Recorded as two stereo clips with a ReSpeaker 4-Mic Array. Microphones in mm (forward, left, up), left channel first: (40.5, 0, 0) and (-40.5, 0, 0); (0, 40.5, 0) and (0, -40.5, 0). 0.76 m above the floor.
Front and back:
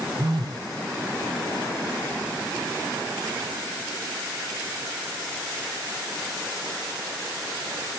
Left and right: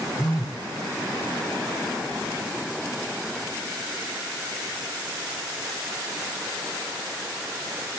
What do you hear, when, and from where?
0.2 s a phone buzzing: 140° left, 3.5 m